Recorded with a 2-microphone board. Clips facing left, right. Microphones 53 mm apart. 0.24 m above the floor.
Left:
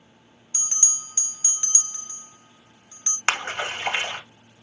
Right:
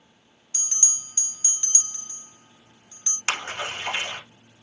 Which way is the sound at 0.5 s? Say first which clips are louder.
Left 3 dB; 20° left (ahead or behind).